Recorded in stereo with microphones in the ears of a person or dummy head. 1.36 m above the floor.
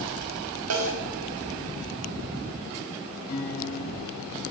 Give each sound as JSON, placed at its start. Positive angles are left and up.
{"t": 0.7, "sound": "a snare drum", "side_deg": -75, "distance_m": 5.5}
{"t": 3.3, "sound": "a guitar", "side_deg": 50, "distance_m": 7.0}